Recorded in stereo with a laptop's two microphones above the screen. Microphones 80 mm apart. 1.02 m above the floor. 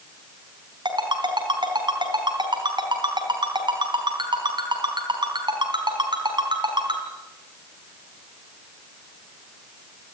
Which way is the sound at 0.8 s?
70° right (ahead or behind).